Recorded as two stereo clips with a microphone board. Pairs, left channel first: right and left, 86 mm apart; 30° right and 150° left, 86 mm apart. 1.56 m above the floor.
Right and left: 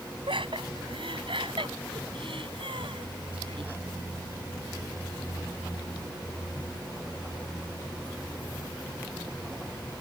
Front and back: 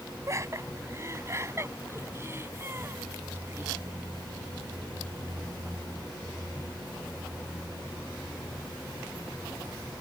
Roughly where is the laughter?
Left.